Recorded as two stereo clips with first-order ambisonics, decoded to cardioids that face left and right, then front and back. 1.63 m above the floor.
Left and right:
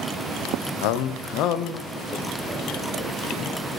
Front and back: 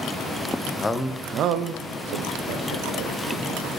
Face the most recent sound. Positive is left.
turn(degrees=-170)